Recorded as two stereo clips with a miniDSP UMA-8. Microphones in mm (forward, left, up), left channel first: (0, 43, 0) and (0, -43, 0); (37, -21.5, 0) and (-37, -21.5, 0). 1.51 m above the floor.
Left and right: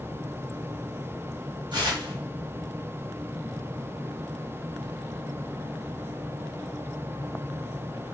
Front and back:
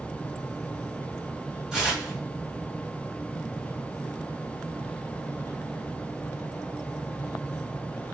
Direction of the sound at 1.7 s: 95° right.